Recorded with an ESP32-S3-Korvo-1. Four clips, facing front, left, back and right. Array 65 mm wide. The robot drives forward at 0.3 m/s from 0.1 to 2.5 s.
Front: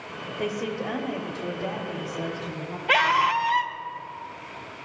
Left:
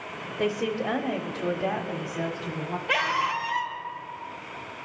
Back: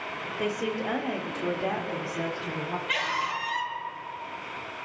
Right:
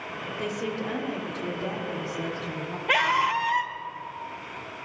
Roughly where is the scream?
Ahead right.